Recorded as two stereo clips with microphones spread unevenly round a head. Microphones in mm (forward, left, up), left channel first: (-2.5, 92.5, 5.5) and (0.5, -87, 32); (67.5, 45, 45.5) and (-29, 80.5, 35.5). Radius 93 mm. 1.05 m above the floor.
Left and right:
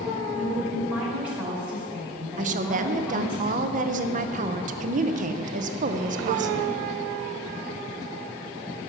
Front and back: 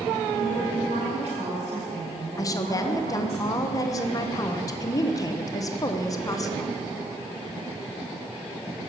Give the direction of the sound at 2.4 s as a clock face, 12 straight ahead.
2 o'clock.